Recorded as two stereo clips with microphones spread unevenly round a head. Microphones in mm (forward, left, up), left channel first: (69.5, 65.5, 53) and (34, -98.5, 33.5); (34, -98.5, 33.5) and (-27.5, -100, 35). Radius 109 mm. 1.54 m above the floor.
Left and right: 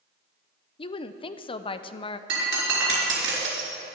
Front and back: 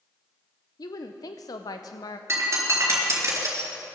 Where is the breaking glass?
140° right, 3.5 m.